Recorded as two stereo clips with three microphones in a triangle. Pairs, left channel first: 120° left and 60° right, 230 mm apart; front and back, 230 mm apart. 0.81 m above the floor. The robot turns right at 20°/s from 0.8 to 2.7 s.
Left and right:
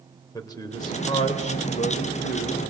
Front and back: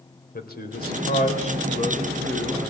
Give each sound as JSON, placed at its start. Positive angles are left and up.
{"t": 0.3, "sound": "a man speaking", "azimuth_deg": 45, "distance_m": 3.5}